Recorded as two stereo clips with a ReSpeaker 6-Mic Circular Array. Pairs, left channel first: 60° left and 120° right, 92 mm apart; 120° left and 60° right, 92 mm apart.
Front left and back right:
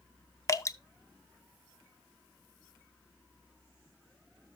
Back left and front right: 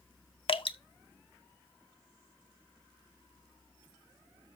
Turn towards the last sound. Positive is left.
turn(degrees=110)